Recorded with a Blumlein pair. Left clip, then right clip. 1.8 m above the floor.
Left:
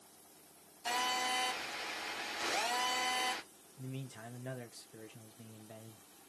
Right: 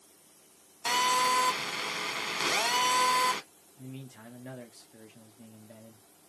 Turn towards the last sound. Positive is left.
turn(degrees=5)